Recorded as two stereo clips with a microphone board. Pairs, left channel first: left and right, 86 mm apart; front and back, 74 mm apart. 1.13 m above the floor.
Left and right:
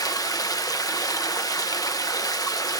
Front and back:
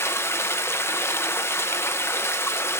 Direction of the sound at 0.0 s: 50° left.